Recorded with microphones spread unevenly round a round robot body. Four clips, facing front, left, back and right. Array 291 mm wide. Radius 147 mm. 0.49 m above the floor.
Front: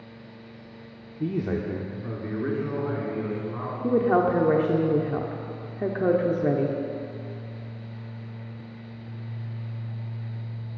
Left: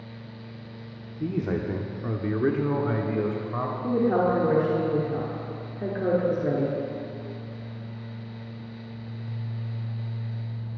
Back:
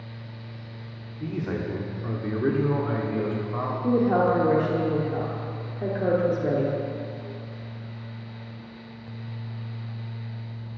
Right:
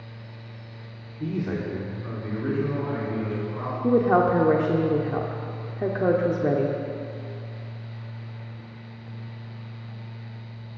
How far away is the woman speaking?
About 0.9 m.